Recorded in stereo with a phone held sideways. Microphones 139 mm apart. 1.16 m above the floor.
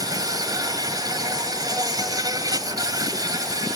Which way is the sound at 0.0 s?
30° right (ahead or behind).